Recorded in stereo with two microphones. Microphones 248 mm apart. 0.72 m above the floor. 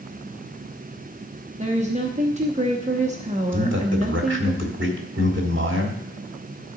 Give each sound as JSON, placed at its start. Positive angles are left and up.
{"t": 1.6, "sound": "a woman speaking", "side_deg": -30, "distance_m": 0.9}
{"t": 3.5, "sound": "a man speaking", "side_deg": -50, "distance_m": 1.7}